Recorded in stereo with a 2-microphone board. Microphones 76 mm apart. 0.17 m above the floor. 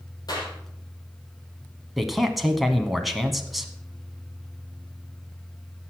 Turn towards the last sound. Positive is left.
turn(degrees=0)  # may be behind; listen again after turning